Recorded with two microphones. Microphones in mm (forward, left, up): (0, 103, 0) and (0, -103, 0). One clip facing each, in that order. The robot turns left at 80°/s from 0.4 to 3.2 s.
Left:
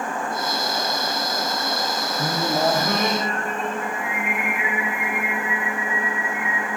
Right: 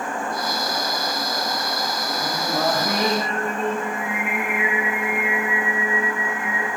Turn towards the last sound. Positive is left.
turn(degrees=-30)